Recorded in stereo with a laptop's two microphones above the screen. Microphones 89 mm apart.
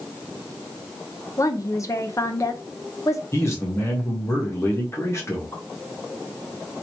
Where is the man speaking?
35° left (ahead or behind), 1.3 m.